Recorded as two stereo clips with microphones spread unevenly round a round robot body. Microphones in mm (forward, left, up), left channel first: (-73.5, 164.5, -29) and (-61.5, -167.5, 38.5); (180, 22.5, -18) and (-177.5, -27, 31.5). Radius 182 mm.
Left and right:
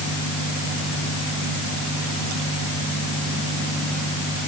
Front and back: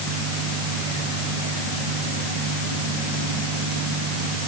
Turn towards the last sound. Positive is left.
No sound to turn to.